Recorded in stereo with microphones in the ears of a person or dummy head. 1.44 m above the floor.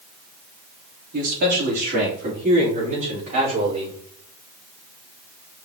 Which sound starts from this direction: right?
A man speaking, at 1.1 s.